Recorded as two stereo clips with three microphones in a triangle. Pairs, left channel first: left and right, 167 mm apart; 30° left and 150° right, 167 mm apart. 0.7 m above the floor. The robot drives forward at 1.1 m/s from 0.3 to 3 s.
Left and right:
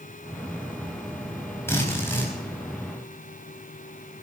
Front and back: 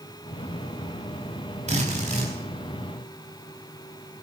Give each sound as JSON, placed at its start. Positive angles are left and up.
{"t": 1.7, "sound": "a drill", "azimuth_deg": 165, "distance_m": 4.5}